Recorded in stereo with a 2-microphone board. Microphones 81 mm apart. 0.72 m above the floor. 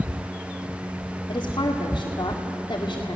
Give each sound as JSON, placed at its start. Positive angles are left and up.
{"t": 1.3, "sound": "a woman speaking", "side_deg": 55, "distance_m": 2.0}